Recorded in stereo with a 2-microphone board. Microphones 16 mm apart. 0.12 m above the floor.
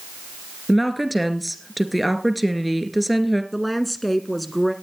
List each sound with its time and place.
0.7 s a woman speaking: centre (ahead or behind), 2.5 m
3.5 s a woman speaking: 5° left (ahead or behind), 1.2 m